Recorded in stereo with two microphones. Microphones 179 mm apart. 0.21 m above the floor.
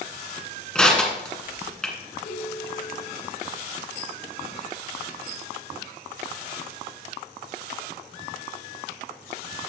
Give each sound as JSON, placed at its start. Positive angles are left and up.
{"t": 0.8, "sound": "crushing", "side_deg": 5, "distance_m": 1.6}
{"t": 2.2, "sound": "a ringtone", "side_deg": 75, "distance_m": 3.5}